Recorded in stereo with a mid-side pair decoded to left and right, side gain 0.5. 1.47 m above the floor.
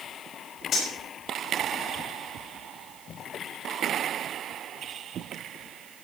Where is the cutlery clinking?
55° left, 6 m.